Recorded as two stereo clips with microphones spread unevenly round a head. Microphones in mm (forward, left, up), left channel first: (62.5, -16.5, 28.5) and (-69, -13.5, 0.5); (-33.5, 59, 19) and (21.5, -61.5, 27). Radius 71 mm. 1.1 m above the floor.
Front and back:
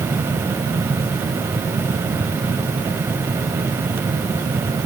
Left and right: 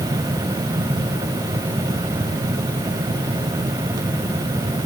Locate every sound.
Only background noise.